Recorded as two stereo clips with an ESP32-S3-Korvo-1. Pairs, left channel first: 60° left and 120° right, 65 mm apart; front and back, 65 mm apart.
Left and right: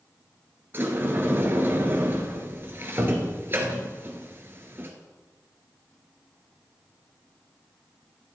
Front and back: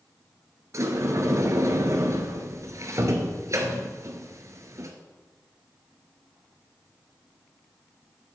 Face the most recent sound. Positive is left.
turn(degrees=-165)